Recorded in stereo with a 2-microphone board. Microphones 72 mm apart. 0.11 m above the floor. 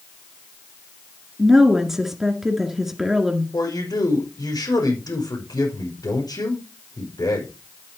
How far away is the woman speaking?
About 1.9 m.